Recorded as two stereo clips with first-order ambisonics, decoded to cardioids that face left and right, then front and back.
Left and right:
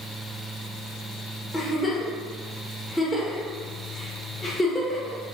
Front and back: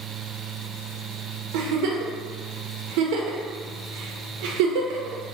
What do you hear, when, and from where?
1.5 s a giggle: 170° left, 0.5 m